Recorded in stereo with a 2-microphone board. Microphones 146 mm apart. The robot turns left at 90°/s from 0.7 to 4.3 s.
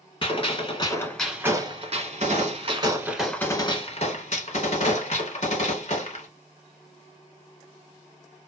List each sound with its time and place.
0.2 s a gunshot: 45° left, 1.0 m; by 6.3 s 85° left, 1.0 m